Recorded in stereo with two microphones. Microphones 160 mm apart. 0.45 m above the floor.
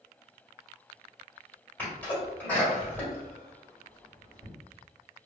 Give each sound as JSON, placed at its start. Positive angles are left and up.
{"t": 1.8, "sound": "a sneeze", "side_deg": 15, "distance_m": 1.8}